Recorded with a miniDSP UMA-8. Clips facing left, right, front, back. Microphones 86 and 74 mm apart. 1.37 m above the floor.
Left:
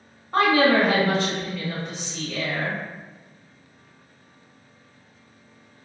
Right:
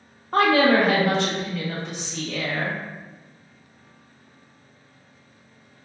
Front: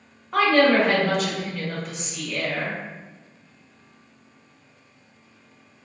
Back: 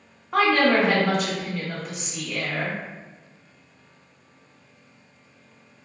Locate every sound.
0.3 s a woman speaking: 95° right, 1.0 m